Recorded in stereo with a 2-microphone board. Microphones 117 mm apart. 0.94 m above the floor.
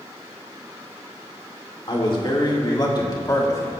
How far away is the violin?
I don't hear a violin.